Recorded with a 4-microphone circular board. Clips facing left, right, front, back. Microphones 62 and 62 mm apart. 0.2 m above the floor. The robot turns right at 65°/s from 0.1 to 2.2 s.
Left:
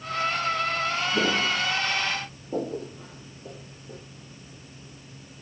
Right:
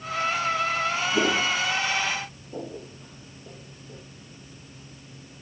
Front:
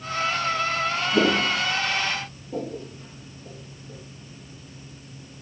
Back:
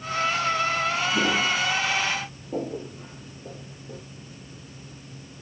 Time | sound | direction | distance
1.1 | footsteps | straight ahead | 1.7 m